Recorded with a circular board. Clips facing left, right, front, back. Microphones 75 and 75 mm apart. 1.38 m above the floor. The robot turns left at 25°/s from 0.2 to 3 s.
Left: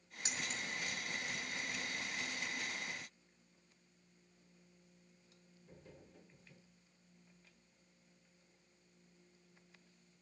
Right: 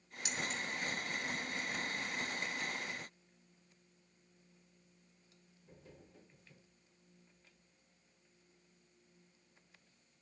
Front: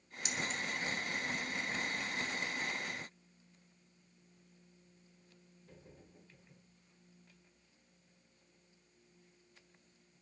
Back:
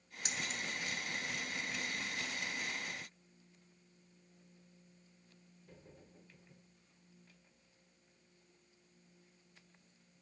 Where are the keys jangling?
145° left, 1.0 m; by 0.6 s 135° left, 1.0 m.